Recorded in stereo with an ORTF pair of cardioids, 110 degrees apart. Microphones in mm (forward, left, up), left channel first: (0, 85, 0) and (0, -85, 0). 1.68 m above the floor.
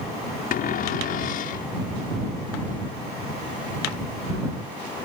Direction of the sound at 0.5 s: 60° left.